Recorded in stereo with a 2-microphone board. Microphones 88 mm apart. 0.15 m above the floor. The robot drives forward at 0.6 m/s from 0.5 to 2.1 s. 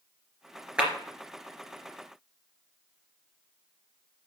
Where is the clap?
10° right (ahead or behind), 2.5 m.